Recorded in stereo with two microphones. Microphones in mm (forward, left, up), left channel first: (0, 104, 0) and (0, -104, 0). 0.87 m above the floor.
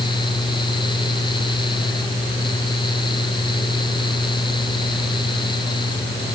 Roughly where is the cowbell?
No cowbell in this recording.